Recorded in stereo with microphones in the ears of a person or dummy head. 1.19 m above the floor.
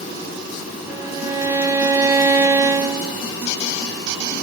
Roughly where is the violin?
Centre.